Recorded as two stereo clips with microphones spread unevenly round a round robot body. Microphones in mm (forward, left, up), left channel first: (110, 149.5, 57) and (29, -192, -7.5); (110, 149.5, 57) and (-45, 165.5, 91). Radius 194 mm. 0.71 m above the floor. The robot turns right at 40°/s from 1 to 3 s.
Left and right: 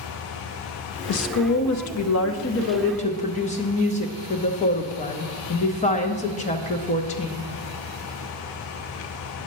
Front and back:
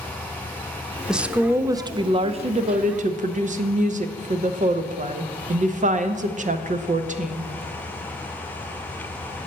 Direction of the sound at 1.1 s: 75° left.